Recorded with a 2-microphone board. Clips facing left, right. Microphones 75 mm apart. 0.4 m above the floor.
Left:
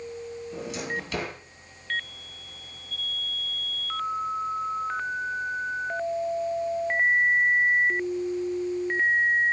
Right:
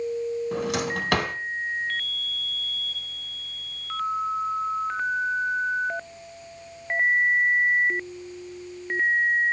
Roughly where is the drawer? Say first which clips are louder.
Right 6 dB; right.